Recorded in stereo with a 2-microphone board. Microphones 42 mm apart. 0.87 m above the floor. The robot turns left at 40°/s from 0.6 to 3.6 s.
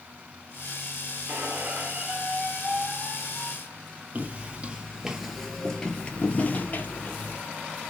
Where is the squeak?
125° right, 1.1 m; by 4.0 s 145° left, 1.1 m.